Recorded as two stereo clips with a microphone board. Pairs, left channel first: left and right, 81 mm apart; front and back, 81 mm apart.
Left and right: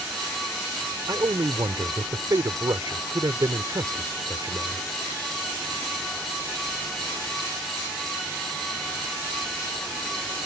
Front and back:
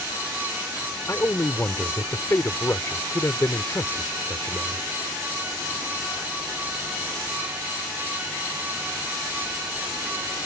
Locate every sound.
1.1 s a man speaking: 55° right